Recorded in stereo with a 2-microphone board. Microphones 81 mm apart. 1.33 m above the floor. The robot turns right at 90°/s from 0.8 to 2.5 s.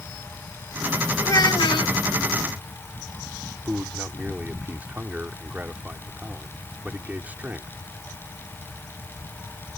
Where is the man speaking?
20° right (ahead or behind).